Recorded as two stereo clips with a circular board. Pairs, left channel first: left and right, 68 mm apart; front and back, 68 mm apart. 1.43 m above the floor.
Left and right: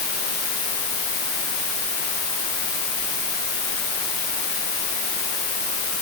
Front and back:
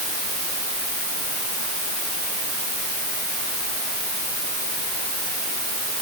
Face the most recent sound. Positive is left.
No sound to turn to.